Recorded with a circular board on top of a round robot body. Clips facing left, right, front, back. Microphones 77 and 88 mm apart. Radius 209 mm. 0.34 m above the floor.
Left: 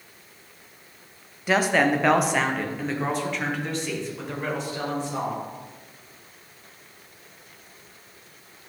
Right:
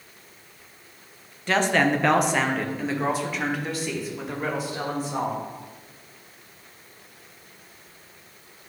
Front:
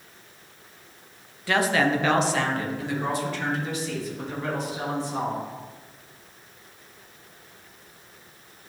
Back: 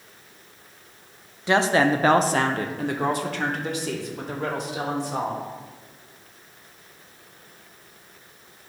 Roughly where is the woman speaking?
Behind left.